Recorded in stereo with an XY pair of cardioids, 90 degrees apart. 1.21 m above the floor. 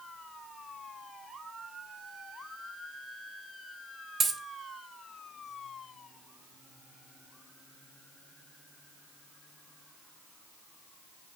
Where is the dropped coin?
50° right, 1.8 m.